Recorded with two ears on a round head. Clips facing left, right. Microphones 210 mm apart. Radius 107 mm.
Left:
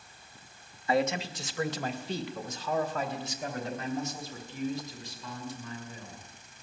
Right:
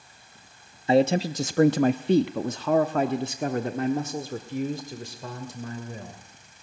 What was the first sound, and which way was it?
A man speaking, 20° right (ahead or behind).